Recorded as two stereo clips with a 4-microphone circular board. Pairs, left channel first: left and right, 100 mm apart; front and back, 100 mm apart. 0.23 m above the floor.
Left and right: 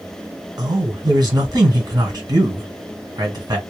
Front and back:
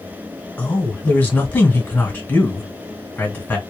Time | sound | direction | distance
0.6 | a man speaking | 65° right | 2 m